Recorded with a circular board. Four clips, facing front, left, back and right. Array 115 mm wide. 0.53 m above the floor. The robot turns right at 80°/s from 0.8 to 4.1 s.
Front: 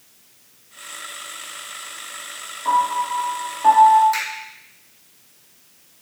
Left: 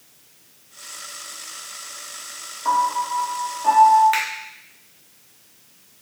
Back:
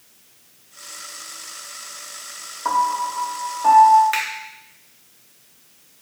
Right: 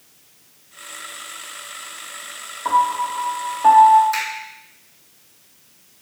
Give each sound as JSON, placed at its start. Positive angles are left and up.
{"t": 2.6, "sound": "a piano", "azimuth_deg": -155, "distance_m": 0.8}
{"t": 4.1, "sound": "a finger snap", "azimuth_deg": 135, "distance_m": 1.2}